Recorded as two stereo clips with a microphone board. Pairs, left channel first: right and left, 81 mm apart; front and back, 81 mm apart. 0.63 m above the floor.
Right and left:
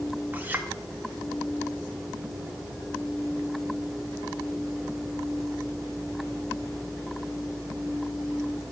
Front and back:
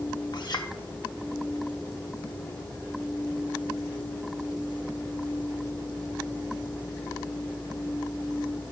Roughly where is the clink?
Ahead left.